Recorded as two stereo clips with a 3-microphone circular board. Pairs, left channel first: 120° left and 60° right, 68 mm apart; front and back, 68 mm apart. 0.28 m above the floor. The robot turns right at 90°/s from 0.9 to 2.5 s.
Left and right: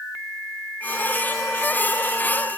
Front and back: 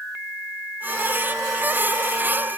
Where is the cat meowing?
No cat meowing in this recording.